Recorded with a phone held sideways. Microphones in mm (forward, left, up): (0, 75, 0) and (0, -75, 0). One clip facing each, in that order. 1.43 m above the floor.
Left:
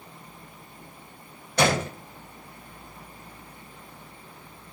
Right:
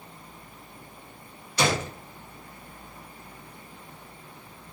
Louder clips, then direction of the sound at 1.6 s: Left 3 dB; 60° left (ahead or behind).